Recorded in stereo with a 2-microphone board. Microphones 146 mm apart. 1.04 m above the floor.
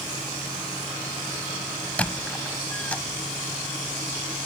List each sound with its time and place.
2.0 s a squeak: 10° left (ahead or behind)